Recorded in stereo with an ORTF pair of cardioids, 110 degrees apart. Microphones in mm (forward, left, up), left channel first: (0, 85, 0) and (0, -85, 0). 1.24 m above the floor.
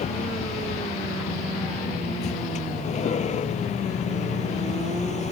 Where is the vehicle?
45° left.